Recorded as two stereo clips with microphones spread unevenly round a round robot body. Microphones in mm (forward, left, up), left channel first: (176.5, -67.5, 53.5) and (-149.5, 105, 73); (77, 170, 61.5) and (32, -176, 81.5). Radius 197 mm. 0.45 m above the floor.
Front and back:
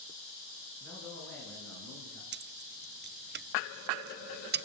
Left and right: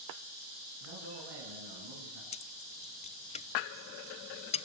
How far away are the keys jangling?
About 0.5 m.